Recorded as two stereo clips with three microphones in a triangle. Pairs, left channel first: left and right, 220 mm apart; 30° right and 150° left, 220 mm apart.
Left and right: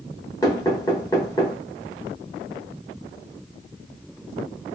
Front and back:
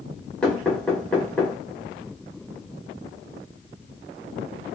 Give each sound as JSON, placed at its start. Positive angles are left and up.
{"t": 0.4, "sound": "knocking", "azimuth_deg": 45, "distance_m": 0.8}